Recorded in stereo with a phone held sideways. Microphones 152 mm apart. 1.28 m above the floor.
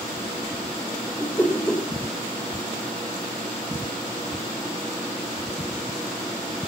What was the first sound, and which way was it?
A whoosh, 10° left (ahead or behind).